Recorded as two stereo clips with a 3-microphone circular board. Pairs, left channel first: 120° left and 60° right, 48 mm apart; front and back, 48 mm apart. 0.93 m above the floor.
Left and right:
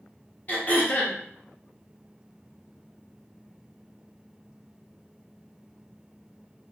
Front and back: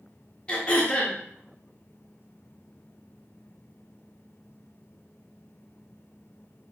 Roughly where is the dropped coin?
No dropped coin in this recording.